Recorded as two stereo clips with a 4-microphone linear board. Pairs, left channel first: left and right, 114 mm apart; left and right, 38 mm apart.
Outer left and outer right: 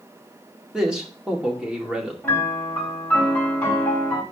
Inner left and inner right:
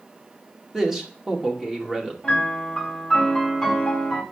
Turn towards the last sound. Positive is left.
turn(degrees=10)  # may be behind; listen again after turning